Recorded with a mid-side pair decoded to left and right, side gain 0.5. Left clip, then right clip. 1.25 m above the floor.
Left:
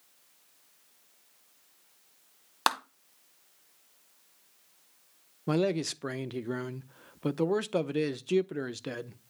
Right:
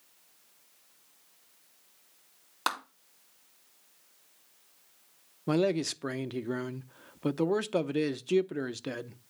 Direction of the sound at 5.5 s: Straight ahead.